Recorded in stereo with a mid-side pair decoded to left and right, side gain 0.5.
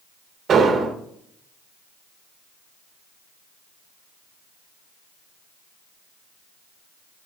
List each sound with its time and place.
0.5 s an explosion: 45° right, 1.1 m